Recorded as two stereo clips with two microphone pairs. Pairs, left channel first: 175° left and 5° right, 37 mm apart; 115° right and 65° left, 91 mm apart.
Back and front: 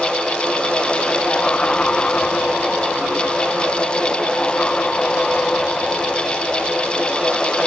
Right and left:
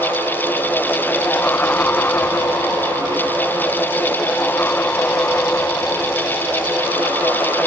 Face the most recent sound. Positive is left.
No sound to turn to.